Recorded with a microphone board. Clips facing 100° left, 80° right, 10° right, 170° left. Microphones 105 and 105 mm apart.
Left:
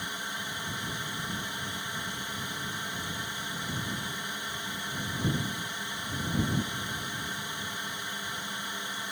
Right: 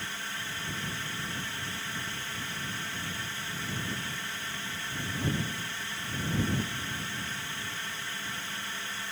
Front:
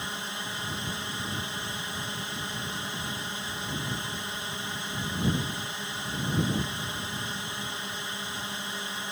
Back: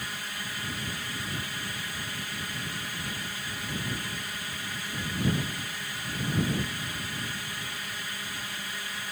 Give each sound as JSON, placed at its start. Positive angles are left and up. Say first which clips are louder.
{"t": 0.0, "sound": "a drone", "louder": "left 2 dB, front 2 dB", "azimuth_deg": 40}